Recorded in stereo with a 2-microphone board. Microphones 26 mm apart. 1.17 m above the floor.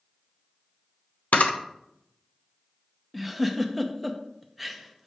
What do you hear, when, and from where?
1.3 s a camera shutter: 75° left (ahead or behind), 0.7 m
3.1 s a giggle: 5° right (ahead or behind), 0.6 m